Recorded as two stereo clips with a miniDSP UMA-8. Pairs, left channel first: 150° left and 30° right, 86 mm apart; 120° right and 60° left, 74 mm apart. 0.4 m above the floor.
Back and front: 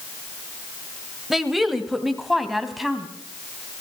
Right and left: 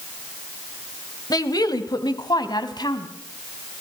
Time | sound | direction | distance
1.3 | a woman speaking | 120° right | 2.0 m